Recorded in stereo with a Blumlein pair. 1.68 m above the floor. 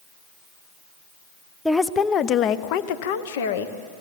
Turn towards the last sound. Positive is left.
turn(degrees=60)